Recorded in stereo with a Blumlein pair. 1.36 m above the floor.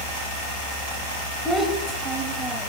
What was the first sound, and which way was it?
A child speaking, straight ahead.